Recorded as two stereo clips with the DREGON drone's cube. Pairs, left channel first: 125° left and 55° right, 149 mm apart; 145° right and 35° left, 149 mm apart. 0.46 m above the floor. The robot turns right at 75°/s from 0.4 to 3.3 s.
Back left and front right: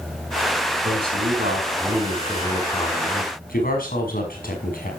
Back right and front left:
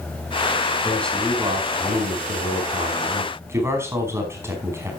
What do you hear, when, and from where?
0.8 s a man speaking: 80° right, 5 m; by 4.9 s 105° left, 5 m